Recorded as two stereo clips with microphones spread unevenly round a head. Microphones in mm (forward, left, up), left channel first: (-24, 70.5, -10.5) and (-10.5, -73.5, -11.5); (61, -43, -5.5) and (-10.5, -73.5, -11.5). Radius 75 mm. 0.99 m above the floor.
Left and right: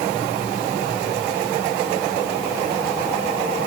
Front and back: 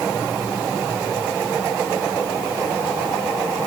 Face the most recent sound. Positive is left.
No sound to turn to.